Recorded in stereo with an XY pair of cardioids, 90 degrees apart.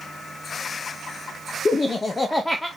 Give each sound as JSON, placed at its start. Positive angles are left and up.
{"t": 1.6, "sound": "laughter", "azimuth_deg": 45, "distance_m": 1.0}